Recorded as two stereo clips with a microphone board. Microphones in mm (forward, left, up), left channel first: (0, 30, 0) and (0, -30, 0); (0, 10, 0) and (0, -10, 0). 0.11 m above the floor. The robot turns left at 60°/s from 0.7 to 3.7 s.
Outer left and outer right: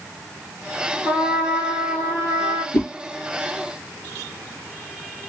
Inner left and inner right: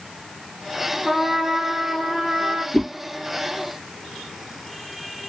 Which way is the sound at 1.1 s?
40° right.